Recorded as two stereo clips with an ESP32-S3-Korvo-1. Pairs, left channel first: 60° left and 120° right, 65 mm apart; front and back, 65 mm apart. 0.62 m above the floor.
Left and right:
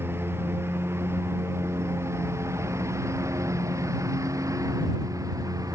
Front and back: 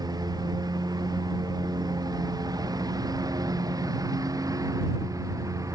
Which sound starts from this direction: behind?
A lawn mower, at 0.0 s.